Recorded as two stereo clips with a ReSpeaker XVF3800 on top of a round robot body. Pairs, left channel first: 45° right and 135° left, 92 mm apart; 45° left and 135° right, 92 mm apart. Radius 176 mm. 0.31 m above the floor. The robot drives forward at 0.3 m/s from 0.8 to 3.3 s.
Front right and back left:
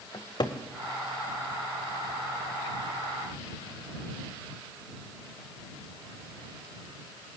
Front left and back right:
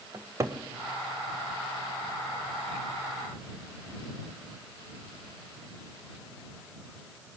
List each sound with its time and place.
0.1 s a cupboard door: 80° right, 1.4 m